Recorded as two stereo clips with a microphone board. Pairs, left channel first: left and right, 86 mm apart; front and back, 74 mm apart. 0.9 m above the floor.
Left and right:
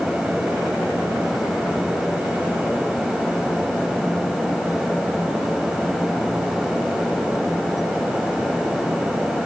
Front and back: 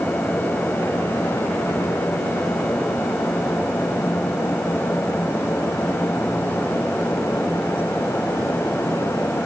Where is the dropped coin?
No dropped coin in this recording.